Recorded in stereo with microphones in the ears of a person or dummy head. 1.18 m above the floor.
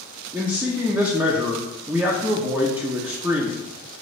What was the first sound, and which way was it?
A man speaking, 10° right (ahead or behind).